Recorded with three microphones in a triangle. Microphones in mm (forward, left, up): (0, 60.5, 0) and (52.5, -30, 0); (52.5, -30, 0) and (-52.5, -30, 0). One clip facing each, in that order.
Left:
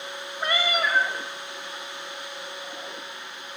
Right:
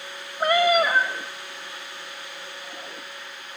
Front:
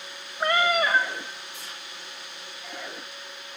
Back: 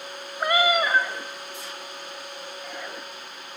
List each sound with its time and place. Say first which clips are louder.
0.4 s a cat meowing: right 7 dB, back 1 dB; 95° right, 0.9 m